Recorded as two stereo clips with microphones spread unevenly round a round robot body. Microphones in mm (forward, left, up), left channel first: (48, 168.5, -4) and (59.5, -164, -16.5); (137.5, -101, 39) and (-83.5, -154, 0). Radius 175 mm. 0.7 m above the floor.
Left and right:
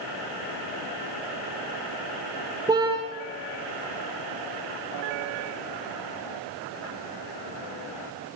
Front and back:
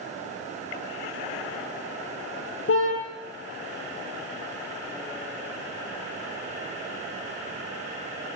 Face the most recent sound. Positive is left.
turn(degrees=-10)